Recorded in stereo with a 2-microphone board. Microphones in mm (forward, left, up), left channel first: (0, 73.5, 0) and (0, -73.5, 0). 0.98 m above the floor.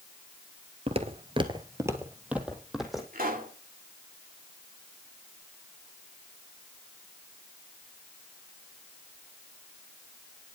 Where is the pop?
75° right (ahead or behind), 2 m.